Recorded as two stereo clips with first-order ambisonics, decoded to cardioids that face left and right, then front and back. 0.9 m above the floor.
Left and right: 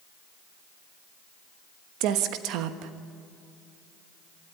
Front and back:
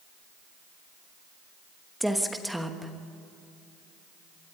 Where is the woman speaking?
90° right, 1.1 m.